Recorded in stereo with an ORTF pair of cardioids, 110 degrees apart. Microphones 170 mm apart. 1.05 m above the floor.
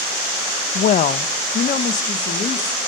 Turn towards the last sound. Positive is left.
turn(degrees=50)